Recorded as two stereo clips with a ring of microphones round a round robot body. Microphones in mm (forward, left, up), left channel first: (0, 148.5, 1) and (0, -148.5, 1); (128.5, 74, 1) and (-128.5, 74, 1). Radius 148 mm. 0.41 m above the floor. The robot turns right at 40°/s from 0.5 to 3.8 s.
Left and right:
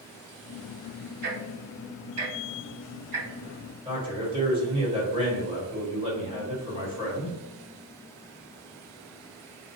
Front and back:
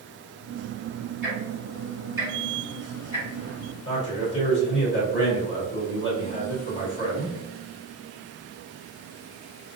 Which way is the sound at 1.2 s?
140° right.